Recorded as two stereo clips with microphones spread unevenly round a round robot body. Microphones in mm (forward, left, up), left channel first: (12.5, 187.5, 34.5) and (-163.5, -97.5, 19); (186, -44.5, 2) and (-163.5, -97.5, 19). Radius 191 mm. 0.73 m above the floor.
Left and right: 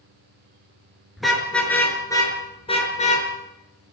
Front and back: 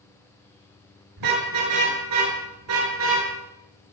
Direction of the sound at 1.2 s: 150° left.